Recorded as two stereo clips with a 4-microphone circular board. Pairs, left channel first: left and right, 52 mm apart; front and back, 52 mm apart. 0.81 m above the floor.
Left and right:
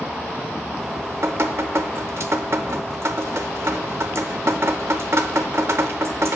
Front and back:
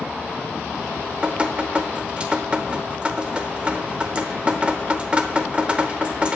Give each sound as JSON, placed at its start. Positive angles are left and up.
{"t": 0.8, "sound": "dripping", "azimuth_deg": -115, "distance_m": 0.8}